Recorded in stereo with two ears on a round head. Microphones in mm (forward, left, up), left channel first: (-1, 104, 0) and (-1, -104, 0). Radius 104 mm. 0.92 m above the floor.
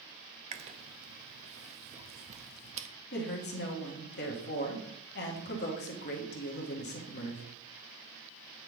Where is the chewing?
30° right (ahead or behind), 0.7 m.